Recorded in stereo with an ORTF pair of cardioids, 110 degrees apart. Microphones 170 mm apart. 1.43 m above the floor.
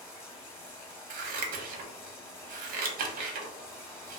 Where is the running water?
20° left, 0.8 m.